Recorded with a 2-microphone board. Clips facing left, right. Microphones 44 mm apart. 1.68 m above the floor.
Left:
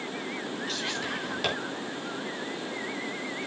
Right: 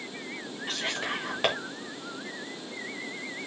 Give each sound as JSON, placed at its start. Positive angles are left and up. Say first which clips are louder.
{"t": 0.7, "sound": "whispering", "louder": "right 4 dB", "side_deg": -35, "distance_m": 4.0}